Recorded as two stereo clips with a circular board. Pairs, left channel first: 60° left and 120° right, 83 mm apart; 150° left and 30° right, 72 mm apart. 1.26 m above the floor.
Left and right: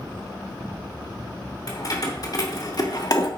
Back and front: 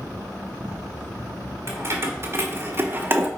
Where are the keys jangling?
20° left, 2.5 m; by 3.3 s 30° left, 1.3 m.